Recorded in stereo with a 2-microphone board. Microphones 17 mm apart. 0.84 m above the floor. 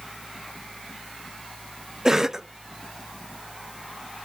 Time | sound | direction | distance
2.0 | a cough | 30° right (ahead or behind) | 0.5 m